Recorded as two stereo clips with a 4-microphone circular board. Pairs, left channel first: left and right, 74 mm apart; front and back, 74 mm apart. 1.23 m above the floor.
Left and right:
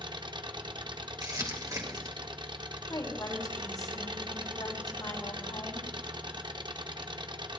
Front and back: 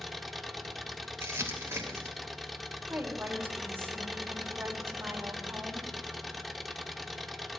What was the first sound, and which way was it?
An engine running, 90° right.